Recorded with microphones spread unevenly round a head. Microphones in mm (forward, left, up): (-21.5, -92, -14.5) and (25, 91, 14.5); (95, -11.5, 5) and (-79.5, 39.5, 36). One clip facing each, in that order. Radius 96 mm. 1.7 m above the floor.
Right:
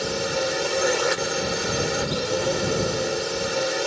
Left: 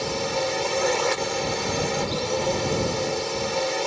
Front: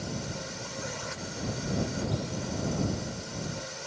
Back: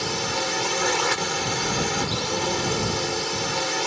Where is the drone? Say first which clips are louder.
Right 1 dB, back 9 dB; 175° left.